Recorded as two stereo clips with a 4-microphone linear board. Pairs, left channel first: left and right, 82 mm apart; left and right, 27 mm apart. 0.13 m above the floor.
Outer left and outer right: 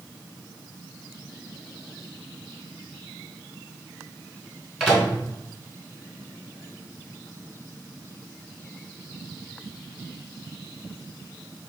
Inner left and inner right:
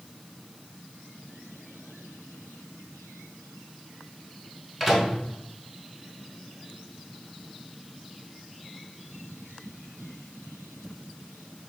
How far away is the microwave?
About 1.2 m.